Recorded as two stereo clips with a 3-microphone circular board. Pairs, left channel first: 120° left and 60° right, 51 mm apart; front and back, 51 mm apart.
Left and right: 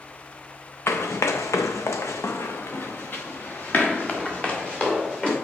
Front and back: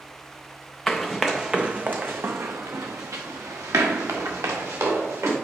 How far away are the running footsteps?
About 0.9 m.